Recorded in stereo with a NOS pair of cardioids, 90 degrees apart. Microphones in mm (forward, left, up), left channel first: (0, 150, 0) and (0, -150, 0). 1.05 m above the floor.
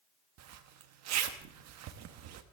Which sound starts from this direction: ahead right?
A zipper, at 0.4 s.